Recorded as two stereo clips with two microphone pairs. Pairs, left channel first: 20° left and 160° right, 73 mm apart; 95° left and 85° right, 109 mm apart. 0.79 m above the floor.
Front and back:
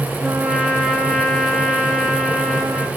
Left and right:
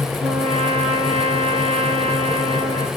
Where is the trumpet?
65° right, 2.5 m.